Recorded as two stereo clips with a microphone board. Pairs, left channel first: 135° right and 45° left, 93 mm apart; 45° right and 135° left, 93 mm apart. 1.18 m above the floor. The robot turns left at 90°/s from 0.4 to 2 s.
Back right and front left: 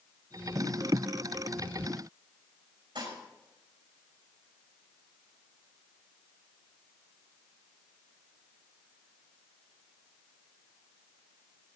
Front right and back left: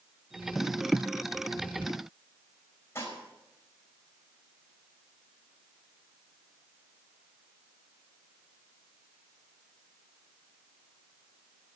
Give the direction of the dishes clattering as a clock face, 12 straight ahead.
11 o'clock.